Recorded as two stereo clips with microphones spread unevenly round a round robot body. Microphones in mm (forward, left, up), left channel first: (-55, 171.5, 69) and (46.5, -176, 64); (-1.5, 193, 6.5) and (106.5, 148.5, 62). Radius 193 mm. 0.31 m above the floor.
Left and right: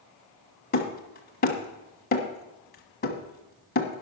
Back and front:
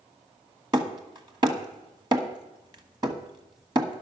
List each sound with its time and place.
0.7 s hammering: 40° left, 1.5 m